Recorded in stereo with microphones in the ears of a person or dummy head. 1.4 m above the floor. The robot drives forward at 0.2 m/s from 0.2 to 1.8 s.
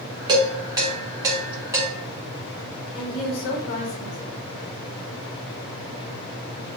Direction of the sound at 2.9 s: 65° left (ahead or behind).